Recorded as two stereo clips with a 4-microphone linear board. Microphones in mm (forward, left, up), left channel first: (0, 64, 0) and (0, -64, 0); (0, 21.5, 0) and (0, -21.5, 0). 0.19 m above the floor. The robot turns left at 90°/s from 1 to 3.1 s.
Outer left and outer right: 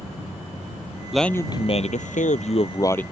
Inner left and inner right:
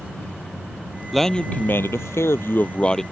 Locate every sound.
1.1 s a man speaking: 175° right; by 3.0 s 10° left